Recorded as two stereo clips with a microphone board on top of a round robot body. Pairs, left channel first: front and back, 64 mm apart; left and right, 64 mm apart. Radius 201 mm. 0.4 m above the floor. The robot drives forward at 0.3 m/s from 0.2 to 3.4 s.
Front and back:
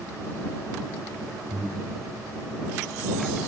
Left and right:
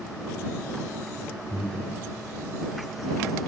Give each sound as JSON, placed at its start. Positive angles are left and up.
{"t": 1.5, "sound": "breathing", "azimuth_deg": 170, "distance_m": 1.4}